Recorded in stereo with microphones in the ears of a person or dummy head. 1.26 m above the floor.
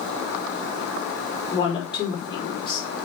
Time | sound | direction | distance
1.5 | a woman speaking | 15° left (ahead or behind) | 4 m